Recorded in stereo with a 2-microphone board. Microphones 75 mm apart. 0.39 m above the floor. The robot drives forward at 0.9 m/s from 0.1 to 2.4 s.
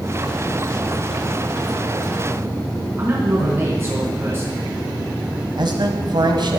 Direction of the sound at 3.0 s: 30° right (ahead or behind).